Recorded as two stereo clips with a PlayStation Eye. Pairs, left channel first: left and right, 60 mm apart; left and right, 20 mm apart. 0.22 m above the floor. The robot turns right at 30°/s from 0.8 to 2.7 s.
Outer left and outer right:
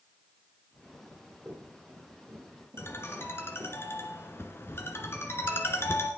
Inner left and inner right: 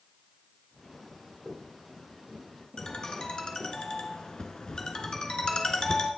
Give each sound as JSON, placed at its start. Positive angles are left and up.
{"t": 1.0, "sound": "running footsteps", "side_deg": -15, "distance_m": 8.0}
{"t": 2.8, "sound": "a ringtone", "side_deg": 40, "distance_m": 1.9}